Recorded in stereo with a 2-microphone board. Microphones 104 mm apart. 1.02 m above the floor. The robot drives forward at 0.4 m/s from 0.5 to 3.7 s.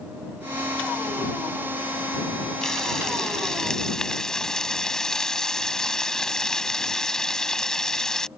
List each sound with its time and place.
2.6 s frying: 5° left (ahead or behind)